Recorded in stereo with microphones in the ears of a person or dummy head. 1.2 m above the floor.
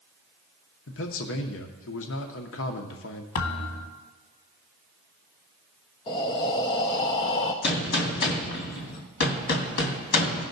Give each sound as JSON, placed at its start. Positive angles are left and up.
{"t": 0.9, "sound": "a man speaking", "side_deg": 60, "distance_m": 0.9}
{"t": 3.4, "sound": "a thud", "side_deg": 35, "distance_m": 1.3}
{"t": 6.1, "sound": "breathing", "side_deg": 15, "distance_m": 0.6}
{"t": 7.6, "sound": "a gunshot", "side_deg": 55, "distance_m": 1.9}